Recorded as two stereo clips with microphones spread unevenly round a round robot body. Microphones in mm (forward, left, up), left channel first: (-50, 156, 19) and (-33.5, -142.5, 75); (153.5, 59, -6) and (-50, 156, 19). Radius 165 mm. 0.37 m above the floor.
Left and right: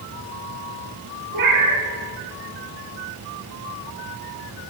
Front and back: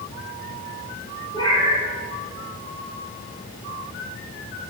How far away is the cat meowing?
About 2.5 m.